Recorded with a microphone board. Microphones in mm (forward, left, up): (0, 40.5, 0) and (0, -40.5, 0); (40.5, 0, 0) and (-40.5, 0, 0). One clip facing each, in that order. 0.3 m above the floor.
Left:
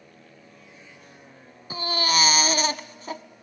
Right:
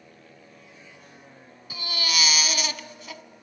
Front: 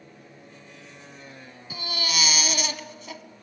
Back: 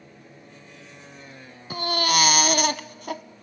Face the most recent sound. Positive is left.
turn(degrees=145)